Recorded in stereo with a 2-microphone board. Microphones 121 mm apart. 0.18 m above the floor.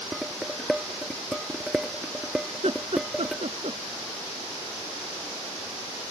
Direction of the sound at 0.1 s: 5° right (ahead or behind).